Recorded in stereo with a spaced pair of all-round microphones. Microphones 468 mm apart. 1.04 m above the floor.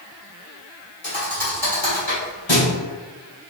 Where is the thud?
70° left (ahead or behind), 2.5 m.